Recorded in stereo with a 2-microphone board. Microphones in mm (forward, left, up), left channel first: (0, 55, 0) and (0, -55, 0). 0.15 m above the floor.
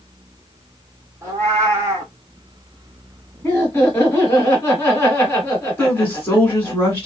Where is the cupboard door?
No cupboard door in this recording.